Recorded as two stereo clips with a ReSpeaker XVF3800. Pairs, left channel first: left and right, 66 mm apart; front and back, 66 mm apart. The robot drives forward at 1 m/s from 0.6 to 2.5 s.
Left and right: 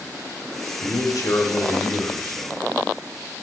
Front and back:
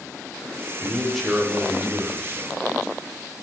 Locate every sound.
0.8 s a man speaking: 70° left, 1.5 m; by 2.5 s 135° left, 1.9 m